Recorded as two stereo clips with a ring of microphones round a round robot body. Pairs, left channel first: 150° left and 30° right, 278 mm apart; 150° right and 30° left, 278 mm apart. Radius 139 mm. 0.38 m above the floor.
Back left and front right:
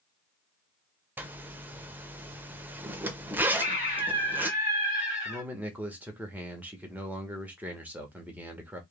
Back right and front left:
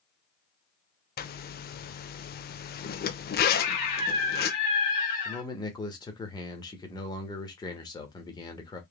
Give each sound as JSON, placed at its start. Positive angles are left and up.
{"t": 1.2, "sound": "a zipper", "azimuth_deg": -110, "distance_m": 0.5}
{"t": 3.5, "sound": "a scream", "azimuth_deg": -145, "distance_m": 2.5}
{"t": 5.2, "sound": "a man speaking", "azimuth_deg": -105, "distance_m": 1.1}